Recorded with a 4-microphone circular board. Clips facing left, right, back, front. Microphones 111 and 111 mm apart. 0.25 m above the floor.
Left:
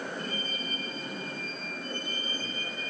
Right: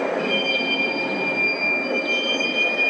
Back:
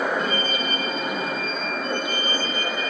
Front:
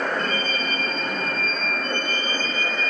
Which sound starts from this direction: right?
A vehicle, at 0.0 s.